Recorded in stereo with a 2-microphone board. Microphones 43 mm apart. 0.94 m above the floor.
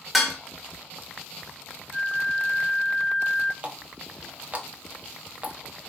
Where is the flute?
15° left (ahead or behind), 1.5 m.